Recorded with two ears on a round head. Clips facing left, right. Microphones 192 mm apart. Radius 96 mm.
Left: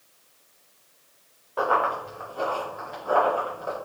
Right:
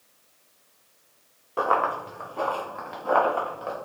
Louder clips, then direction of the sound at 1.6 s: Even; 45° right (ahead or behind).